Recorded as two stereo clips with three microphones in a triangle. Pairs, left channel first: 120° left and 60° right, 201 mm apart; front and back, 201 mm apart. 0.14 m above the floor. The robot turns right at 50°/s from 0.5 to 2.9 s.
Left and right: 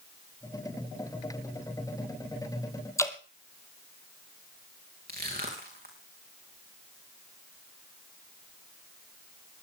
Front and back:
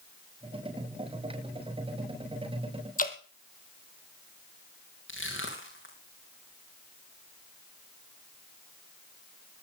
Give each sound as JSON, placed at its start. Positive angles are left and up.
{"t": 3.0, "sound": "dripping", "azimuth_deg": 45, "distance_m": 1.3}
{"t": 5.1, "sound": "crushing", "azimuth_deg": -20, "distance_m": 4.5}